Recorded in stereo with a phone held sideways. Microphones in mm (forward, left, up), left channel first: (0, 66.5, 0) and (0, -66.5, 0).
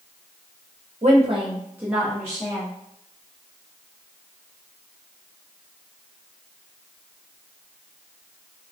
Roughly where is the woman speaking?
Right.